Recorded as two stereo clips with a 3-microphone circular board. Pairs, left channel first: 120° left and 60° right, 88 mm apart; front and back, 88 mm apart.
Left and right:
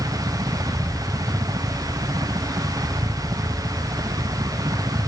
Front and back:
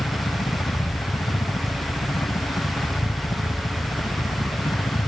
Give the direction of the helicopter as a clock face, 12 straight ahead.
1 o'clock.